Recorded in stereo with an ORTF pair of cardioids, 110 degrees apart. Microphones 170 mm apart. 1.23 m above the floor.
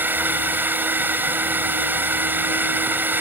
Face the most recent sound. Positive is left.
turn(degrees=-10)